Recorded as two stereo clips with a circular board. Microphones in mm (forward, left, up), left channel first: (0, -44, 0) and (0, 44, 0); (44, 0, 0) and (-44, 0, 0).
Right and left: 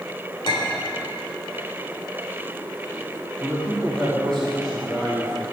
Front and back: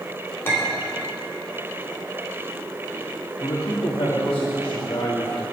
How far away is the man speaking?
About 2.5 m.